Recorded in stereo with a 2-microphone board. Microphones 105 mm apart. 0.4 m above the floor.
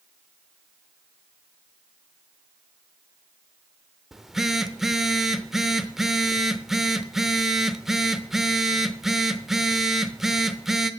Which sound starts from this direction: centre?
A phone buzzing, at 4.1 s.